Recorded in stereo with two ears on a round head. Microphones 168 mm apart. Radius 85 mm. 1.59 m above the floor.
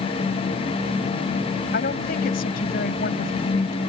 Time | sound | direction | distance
1.7 | a woman speaking | 50° left (ahead or behind) | ?